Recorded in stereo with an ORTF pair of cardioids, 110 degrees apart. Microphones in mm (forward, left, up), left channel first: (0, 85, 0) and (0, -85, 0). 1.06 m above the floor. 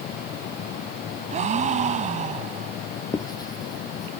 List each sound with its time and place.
0.0 s a fan: 70° left
1.3 s a gasp: 45° right
3.1 s writing: 25° left